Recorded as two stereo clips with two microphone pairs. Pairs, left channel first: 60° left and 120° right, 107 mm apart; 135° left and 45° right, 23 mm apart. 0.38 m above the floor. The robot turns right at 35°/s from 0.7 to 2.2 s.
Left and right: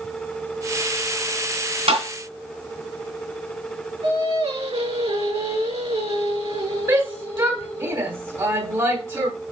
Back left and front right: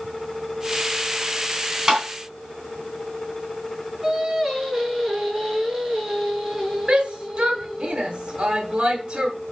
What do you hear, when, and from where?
1.9 s tapping: 120° right, 3 m; by 2.0 s 115° right, 3 m
4.0 s singing: 135° right, 5 m
6.9 s a shout: 90° right, 1.5 m